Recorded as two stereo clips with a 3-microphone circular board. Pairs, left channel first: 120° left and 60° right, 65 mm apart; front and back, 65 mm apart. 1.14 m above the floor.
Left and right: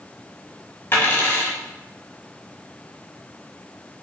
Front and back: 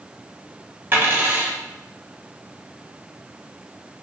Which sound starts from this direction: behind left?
A dropped coin, at 0.9 s.